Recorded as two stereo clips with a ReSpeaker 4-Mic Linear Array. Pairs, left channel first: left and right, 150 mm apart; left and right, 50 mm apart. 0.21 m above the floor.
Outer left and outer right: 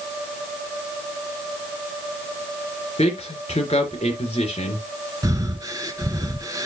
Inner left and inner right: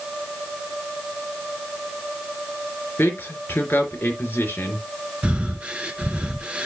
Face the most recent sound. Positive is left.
turn(degrees=-25)  # may be behind; listen again after turning